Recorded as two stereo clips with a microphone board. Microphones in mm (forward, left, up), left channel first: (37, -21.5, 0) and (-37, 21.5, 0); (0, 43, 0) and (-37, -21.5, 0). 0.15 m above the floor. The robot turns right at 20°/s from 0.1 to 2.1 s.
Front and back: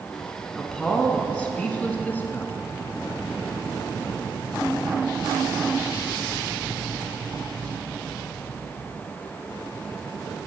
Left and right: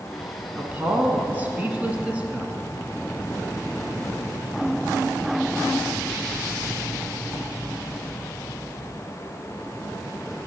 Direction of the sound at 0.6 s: 105° right.